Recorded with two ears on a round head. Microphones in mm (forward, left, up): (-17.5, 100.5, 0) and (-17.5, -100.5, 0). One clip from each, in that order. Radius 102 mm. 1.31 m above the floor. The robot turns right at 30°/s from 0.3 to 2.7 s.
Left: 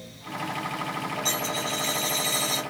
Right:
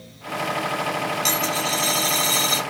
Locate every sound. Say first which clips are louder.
1.2 s a dropped coin: right 4 dB; 95° right, 2 m; by 2.6 s 55° right, 2 m